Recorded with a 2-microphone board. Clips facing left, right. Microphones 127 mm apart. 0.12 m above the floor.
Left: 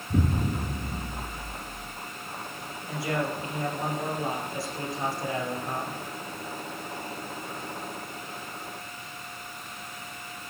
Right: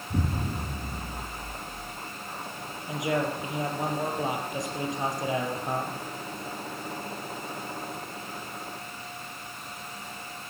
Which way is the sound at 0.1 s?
20° left (ahead or behind).